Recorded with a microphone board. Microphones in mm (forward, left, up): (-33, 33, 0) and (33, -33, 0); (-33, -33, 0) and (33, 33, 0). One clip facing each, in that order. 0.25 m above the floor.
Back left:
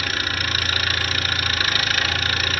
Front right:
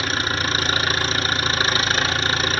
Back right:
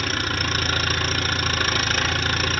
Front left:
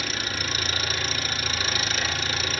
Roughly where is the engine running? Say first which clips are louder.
Front right 3 dB, back right 5 dB; right.